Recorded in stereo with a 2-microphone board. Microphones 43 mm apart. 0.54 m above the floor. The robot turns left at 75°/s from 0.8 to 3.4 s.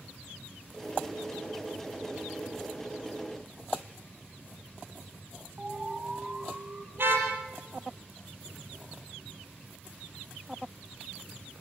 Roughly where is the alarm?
Centre.